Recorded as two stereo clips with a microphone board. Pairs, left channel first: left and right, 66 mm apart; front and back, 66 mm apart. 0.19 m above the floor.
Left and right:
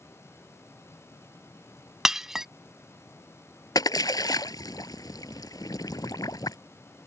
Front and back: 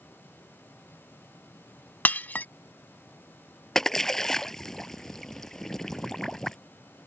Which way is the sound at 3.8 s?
85° left.